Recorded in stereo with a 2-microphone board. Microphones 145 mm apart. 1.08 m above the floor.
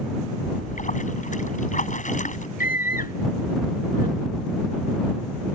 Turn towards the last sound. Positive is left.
turn(degrees=80)